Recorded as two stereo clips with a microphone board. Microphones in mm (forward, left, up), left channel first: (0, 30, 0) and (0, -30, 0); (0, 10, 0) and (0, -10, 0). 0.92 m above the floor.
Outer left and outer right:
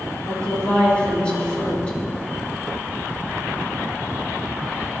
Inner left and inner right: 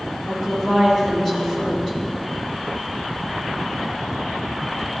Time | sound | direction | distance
0.3 | a woman speaking | 15° left (ahead or behind) | 2 m